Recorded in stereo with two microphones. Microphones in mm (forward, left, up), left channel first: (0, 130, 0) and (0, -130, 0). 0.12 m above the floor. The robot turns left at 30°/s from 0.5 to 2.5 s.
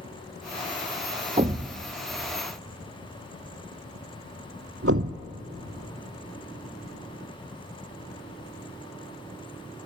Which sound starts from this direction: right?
A thud, at 1.4 s.